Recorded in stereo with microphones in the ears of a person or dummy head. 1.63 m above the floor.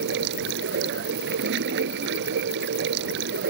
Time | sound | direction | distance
0.0 | running water | 70° right (ahead or behind) | ?